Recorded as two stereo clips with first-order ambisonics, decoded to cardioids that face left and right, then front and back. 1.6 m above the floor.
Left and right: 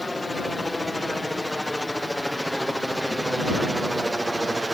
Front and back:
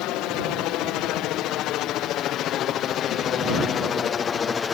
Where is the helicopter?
5° left; by 4.7 s 25° right.